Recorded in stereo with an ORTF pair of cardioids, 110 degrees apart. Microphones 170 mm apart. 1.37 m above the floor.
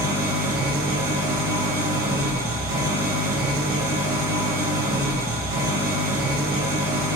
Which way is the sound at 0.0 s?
65° right.